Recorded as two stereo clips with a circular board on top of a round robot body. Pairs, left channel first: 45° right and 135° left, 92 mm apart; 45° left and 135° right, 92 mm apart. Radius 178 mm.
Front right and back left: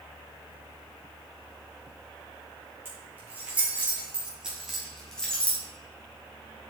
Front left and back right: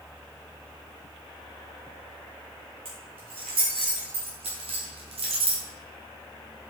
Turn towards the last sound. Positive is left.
turn(degrees=-115)